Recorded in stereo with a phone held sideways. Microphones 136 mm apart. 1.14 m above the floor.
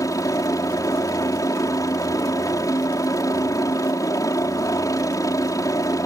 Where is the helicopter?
25° left (ahead or behind).